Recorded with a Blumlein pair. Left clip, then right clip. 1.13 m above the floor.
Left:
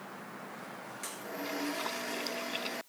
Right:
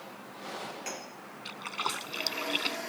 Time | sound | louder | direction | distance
1.4 | a splash | right 2 dB | 25° right | ?